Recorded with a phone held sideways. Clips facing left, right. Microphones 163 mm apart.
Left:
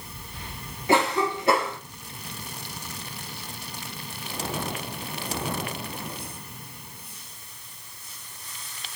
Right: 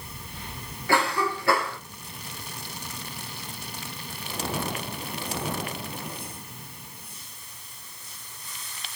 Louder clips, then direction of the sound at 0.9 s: Left 3 dB; 20° left (ahead or behind).